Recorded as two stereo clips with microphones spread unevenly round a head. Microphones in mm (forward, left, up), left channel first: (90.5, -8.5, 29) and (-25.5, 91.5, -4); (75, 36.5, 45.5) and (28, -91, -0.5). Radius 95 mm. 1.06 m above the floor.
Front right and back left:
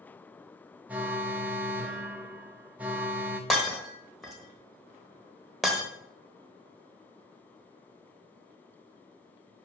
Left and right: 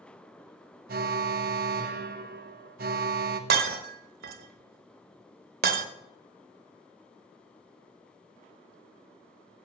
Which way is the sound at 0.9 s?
135° right.